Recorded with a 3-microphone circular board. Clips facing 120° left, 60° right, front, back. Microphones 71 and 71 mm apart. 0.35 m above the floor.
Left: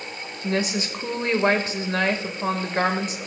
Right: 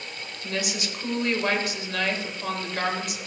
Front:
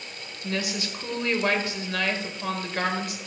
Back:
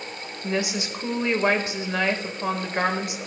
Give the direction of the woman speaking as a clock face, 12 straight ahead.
8 o'clock.